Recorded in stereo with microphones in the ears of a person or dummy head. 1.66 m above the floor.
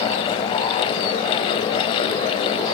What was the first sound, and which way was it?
Only background noise.